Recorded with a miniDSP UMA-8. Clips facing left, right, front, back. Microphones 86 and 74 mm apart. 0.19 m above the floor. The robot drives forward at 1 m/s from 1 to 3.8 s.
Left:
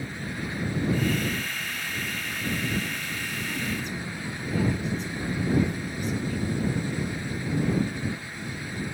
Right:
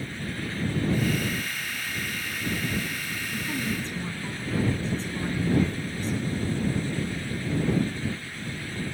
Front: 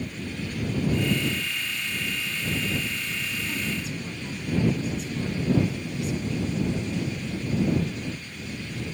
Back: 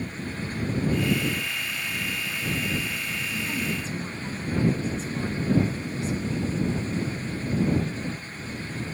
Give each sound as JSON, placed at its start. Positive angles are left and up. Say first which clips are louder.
{"t": 3.3, "sound": "a woman speaking", "louder": "right 2 dB, back 2 dB", "azimuth_deg": -120, "distance_m": 1.7}